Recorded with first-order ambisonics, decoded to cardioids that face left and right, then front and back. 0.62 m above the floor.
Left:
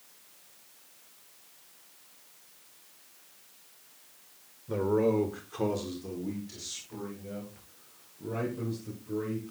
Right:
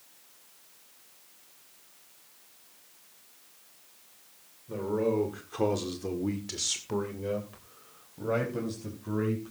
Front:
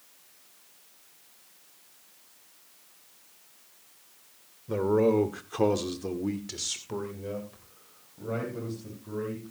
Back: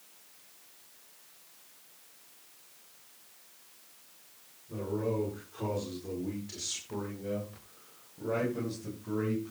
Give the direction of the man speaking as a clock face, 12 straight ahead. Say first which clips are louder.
Left 2 dB, front 10 dB; 11 o'clock.